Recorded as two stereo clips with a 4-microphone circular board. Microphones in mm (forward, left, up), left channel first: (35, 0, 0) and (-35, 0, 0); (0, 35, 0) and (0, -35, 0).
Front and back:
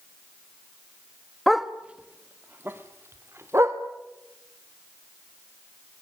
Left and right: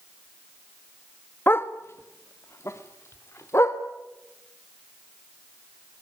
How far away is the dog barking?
About 1.0 m.